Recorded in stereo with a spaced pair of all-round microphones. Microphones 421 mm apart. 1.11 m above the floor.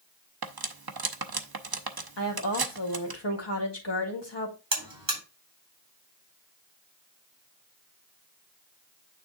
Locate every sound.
0.4 s cutlery clinking: 60° right (ahead or behind), 0.8 m
2.2 s a woman speaking: 75° left (ahead or behind), 1.9 m
4.7 s a buzzer: 85° right, 3 m